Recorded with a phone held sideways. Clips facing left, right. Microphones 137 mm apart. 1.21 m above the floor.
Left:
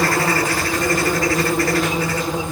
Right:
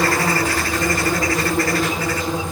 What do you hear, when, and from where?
0.0 s an insect: 20° left (ahead or behind), 1.3 m